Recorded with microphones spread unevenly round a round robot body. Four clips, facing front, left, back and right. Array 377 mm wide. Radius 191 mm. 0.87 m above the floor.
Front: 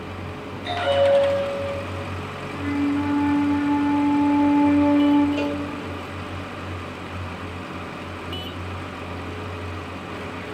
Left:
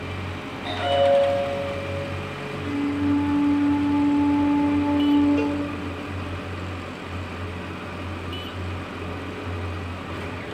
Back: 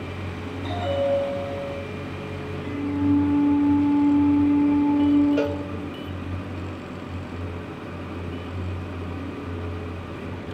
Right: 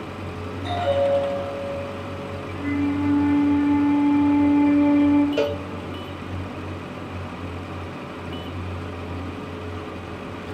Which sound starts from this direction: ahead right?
A flute, at 2.5 s.